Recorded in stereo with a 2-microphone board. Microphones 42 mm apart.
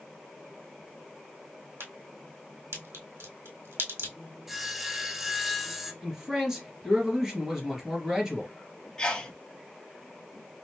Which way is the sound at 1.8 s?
75° right (ahead or behind).